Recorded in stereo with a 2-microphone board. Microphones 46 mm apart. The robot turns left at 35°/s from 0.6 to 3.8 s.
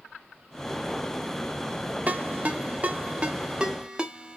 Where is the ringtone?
40° right (ahead or behind), 0.9 m; by 4.4 s 20° right (ahead or behind), 0.9 m.